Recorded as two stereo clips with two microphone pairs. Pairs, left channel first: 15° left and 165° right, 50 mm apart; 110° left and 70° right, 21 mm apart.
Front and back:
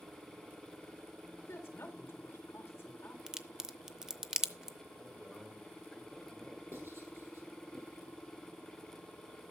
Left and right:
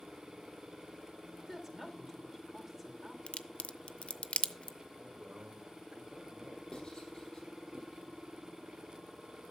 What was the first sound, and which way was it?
A woman speaking, 5° left.